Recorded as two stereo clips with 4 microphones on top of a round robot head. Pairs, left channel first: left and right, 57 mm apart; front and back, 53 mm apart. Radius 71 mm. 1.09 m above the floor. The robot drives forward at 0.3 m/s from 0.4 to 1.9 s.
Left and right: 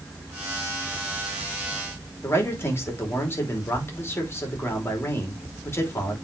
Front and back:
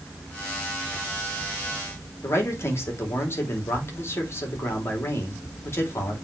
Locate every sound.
2.2 s a man speaking: 40° left, 3.5 m